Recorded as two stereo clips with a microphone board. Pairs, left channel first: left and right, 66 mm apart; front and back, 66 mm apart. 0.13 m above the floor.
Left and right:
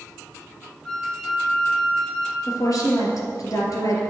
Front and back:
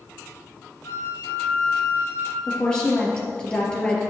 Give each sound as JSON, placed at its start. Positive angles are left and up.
{"t": 0.8, "sound": "a flute", "azimuth_deg": 10, "distance_m": 1.7}
{"t": 2.5, "sound": "a woman speaking", "azimuth_deg": 75, "distance_m": 3.0}